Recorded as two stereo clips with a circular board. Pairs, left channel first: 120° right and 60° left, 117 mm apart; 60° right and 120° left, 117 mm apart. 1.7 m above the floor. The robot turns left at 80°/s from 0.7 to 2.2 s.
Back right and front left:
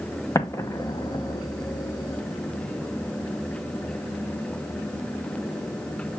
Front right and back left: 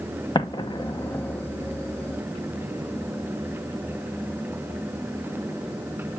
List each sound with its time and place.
0.3 s an explosion: 75° right, 0.8 m; by 1.4 s 130° right, 0.8 m